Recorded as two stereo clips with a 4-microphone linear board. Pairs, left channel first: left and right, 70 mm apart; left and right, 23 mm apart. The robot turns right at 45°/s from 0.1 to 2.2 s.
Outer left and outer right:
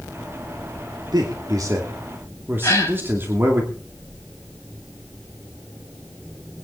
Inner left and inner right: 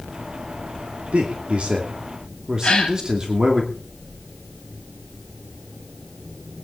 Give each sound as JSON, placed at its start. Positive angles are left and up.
{"t": 1.1, "sound": "a man speaking", "azimuth_deg": -80, "distance_m": 2.5}
{"t": 2.6, "sound": "a gasp", "side_deg": 35, "distance_m": 7.0}